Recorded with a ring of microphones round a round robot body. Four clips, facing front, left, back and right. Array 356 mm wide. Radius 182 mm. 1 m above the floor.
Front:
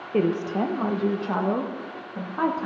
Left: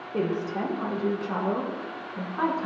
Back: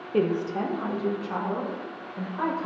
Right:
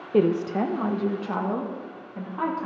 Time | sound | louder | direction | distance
0.1 | a woman speaking | right 6 dB, front 2 dB | 75° right | 0.9 m